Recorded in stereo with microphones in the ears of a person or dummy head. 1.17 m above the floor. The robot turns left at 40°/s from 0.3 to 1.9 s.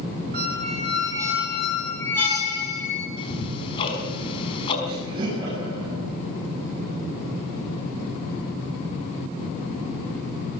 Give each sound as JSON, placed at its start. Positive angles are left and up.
{"t": 0.3, "sound": "a squeak", "azimuth_deg": -130, "distance_m": 4.5}
{"t": 3.2, "sound": "ticking", "side_deg": 30, "distance_m": 5.0}
{"t": 4.8, "sound": "laughter", "side_deg": -30, "distance_m": 9.0}